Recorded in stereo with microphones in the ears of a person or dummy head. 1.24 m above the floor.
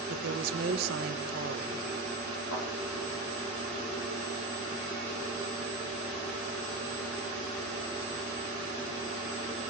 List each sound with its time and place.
0.1 s a woman speaking: 55° right (ahead or behind), 1.5 m
2.5 s a thud: 70° left (ahead or behind), 10 m